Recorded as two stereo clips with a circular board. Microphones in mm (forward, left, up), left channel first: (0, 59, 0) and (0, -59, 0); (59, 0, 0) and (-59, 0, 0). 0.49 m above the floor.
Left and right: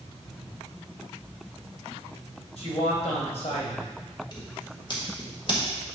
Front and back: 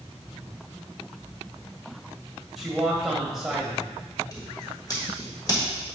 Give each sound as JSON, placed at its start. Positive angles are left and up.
{"t": 2.6, "sound": "a man speaking", "azimuth_deg": 90, "distance_m": 2.0}
{"t": 4.3, "sound": "scissors", "azimuth_deg": 50, "distance_m": 1.7}